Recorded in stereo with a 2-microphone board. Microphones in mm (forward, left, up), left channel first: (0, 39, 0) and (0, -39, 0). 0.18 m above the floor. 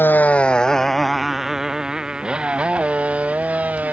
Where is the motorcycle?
25° left (ahead or behind); by 3.9 s 20° right (ahead or behind).